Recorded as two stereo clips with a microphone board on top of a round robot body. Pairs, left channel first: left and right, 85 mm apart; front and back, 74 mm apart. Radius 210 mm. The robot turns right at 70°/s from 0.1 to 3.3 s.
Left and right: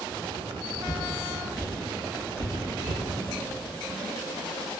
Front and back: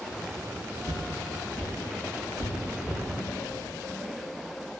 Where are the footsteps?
140° left, 2.5 m; by 3.0 s 95° right, 3.5 m.